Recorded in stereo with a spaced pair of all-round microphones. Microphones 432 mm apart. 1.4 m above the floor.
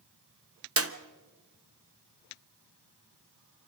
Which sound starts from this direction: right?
A clap, at 0.8 s.